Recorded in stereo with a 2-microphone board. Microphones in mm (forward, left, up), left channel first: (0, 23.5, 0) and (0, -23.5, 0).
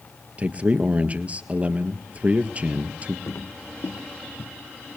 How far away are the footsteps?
About 1.4 m.